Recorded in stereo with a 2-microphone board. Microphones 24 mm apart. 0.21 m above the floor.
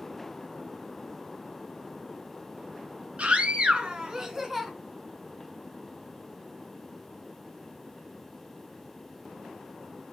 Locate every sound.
3.2 s a scream: 55° right (ahead or behind), 3 m; by 4.7 s 10° right (ahead or behind), 3 m